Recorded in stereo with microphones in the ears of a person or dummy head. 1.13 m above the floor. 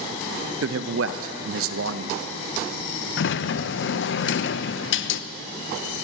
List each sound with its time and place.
0.6 s a man speaking: 65° right (ahead or behind), 0.8 m
3.2 s a sliding door: 60° left (ahead or behind), 0.6 m